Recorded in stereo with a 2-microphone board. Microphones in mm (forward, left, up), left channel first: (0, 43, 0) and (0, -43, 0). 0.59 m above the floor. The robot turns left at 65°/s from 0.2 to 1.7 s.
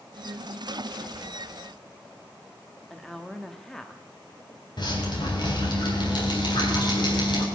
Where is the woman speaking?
5° left (ahead or behind), 1.1 m.